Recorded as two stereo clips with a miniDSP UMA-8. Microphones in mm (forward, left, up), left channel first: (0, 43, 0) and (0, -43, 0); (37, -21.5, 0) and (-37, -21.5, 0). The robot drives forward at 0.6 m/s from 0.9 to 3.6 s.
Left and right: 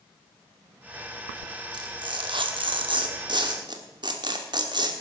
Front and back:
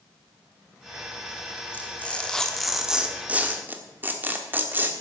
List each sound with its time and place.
1.7 s tearing paper: 65° right, 1.3 m; by 4.9 s 115° right, 1.3 m